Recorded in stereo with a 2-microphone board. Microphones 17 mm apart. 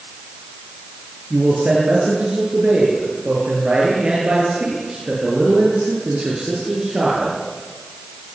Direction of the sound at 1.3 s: 75° right (ahead or behind).